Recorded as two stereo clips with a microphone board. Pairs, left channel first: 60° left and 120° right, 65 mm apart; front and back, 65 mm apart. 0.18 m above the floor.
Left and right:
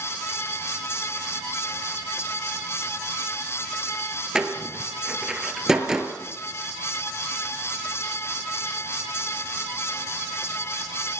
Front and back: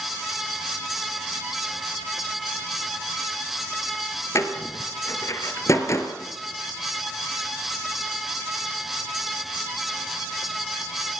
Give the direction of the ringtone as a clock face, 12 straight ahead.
No ringtone in this recording.